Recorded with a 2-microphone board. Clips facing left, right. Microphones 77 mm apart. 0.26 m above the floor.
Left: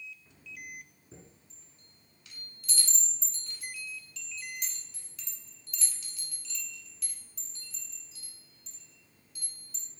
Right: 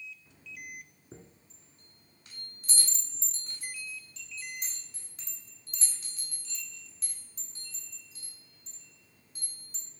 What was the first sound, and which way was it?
A chime, 35° right (ahead or behind).